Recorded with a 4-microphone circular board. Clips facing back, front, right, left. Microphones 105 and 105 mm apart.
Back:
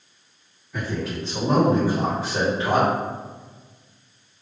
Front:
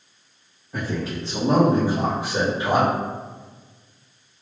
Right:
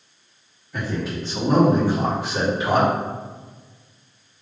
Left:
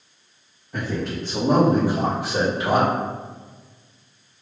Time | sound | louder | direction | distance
0.7 | a man speaking | front 1 dB, even | 45° left | 1.3 m